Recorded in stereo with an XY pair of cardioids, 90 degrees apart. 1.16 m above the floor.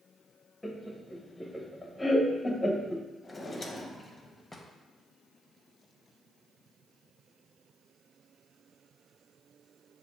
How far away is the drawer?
About 0.8 m.